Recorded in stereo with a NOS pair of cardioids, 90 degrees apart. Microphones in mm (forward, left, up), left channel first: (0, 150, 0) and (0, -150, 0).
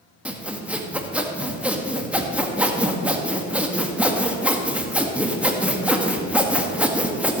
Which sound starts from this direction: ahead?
Sawing, at 0.2 s.